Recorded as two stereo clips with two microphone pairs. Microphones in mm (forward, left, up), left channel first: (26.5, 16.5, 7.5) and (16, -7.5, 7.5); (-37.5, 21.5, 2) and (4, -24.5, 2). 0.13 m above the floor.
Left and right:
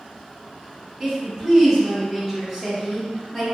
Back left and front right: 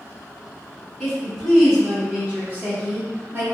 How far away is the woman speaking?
About 1.2 m.